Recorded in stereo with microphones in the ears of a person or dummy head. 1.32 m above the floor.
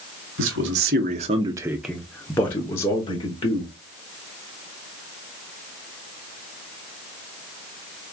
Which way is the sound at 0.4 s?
60° right (ahead or behind).